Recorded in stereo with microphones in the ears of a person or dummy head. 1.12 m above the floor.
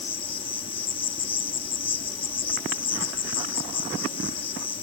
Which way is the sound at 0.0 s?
30° left (ahead or behind).